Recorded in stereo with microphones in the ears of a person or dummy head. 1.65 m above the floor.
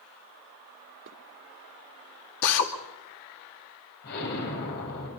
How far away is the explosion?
About 7.5 m.